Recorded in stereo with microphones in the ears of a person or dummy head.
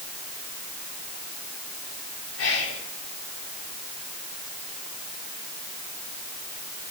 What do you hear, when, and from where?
2.4 s whispering: 75° left (ahead or behind), 4.5 m